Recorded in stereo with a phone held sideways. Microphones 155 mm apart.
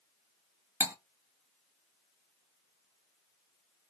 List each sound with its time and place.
0.8 s cutlery clinking: 10° right (ahead or behind), 0.5 m